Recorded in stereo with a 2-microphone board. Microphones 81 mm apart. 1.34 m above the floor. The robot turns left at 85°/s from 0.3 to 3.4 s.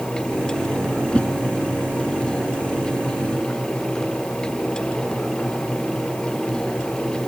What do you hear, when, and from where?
1.1 s a whoosh: 10° left (ahead or behind); by 1.3 s 25° left (ahead or behind)